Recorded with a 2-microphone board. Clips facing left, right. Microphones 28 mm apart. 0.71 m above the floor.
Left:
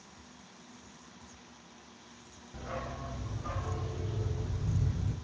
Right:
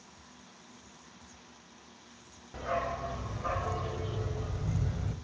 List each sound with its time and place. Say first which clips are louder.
2.5 s a dog barking: right 7 dB; 60° right (ahead or behind), 1.5 m